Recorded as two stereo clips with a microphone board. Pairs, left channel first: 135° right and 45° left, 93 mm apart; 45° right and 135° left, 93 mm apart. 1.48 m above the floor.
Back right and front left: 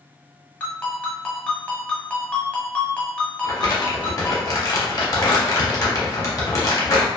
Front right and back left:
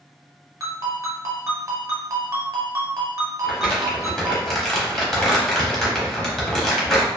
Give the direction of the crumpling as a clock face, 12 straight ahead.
4 o'clock.